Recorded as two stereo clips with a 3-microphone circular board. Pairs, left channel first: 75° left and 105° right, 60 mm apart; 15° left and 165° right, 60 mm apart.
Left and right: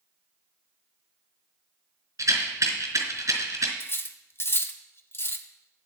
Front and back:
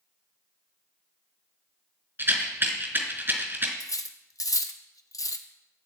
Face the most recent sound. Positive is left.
turn(degrees=25)